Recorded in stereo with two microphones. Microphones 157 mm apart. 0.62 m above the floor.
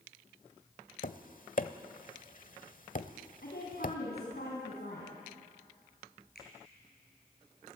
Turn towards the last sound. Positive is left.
turn(degrees=85)